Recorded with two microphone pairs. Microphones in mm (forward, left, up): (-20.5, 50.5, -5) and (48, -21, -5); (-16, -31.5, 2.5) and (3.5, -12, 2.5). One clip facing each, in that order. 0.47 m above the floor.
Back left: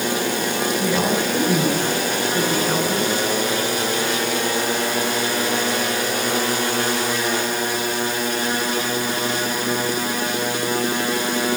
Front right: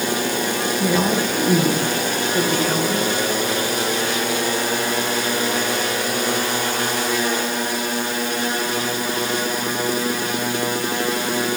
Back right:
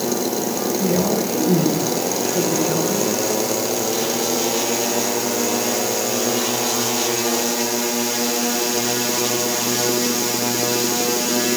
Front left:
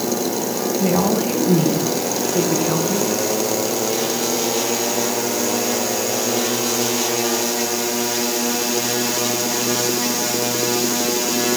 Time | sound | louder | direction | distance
0.8 | a woman speaking | front right 3 dB, front left 2 dB | 40° left | 4.5 m